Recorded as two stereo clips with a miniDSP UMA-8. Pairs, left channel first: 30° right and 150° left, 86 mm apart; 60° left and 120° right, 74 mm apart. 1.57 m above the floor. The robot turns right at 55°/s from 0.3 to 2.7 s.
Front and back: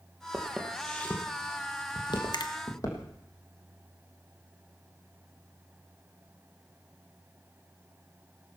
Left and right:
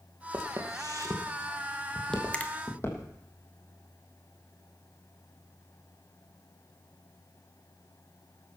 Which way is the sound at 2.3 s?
10° right.